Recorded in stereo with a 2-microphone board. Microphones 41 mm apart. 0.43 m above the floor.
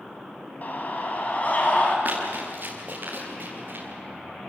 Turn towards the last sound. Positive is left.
turn(degrees=-50)  # may be behind; listen again after turning